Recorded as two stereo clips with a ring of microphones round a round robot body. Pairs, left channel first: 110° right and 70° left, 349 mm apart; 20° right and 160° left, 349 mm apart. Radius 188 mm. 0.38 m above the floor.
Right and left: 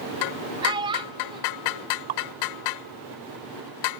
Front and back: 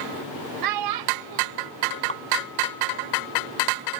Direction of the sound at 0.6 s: 145° left.